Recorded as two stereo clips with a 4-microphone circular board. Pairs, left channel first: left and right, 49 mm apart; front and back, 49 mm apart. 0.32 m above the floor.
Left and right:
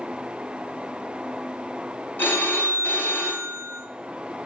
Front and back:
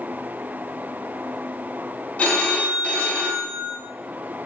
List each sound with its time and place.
2.2 s a phone ringing: 55° left, 1.1 m